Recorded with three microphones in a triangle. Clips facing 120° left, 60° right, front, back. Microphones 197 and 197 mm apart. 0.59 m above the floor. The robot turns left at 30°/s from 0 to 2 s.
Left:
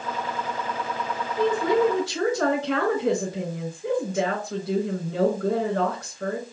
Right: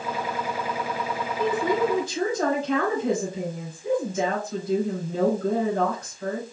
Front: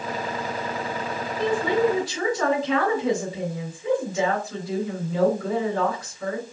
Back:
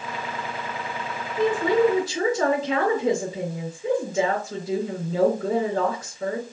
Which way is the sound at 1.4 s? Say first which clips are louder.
Left 3 dB, back 2 dB; 150° left.